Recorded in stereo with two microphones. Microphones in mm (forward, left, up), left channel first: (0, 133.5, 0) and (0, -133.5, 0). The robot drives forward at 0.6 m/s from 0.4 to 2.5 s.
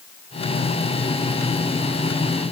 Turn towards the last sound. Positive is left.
No sound to turn to.